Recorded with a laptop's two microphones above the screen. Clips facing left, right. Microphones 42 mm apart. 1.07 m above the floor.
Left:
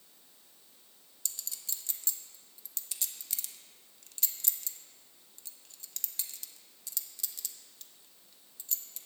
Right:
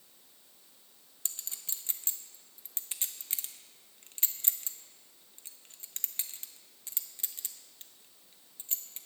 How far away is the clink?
About 0.8 m.